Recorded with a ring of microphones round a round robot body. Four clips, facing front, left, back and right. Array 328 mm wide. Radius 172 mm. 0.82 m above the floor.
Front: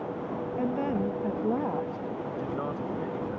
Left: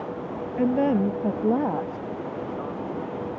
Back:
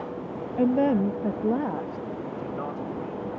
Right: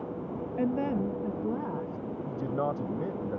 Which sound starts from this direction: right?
A man speaking, at 2.3 s.